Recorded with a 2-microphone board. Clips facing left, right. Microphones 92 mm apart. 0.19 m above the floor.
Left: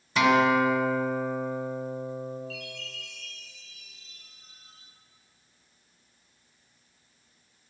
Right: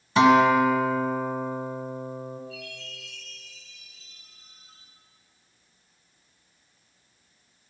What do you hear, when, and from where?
0.2 s a guitar: 30° right (ahead or behind), 1.4 m
2.5 s a chime: 70° left (ahead or behind), 5.5 m